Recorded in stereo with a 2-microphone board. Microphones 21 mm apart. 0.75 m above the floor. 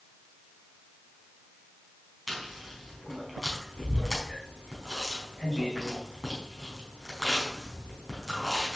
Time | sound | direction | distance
2.3 | chewing | centre (ahead or behind) | 4 m